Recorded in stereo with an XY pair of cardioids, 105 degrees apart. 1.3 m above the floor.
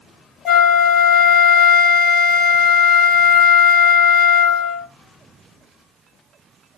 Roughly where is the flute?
Ahead left.